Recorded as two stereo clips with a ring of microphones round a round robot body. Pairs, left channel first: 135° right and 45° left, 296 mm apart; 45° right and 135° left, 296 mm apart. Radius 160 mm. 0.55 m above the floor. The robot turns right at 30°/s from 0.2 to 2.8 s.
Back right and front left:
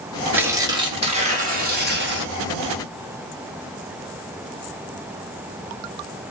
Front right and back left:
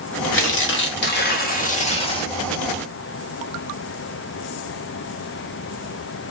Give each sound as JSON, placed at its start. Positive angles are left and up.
{"t": 0.3, "sound": "tearing paper", "azimuth_deg": -35, "distance_m": 1.5}